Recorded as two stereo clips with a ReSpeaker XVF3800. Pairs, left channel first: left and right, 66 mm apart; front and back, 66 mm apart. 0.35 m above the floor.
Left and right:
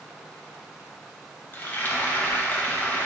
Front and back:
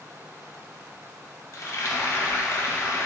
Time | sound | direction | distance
1.5 | frying | 30° left | 0.6 m